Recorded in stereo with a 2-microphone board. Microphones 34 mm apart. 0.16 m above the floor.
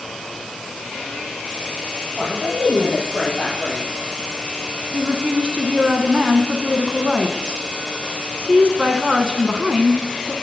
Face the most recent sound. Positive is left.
turn(degrees=-30)  # may be behind; listen again after turning